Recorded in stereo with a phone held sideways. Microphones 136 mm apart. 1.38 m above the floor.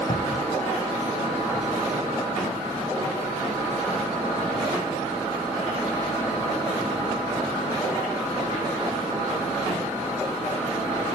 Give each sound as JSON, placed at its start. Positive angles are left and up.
{"t": 0.1, "sound": "a cupboard door", "side_deg": 65}